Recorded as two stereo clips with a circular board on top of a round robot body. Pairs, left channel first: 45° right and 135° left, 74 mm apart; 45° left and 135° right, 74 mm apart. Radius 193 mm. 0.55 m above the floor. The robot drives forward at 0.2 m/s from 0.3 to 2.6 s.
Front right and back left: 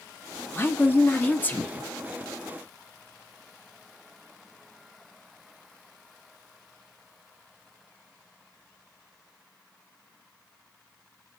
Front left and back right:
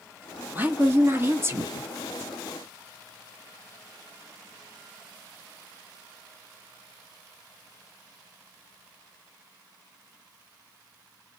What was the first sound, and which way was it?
A woman speaking, 85° right.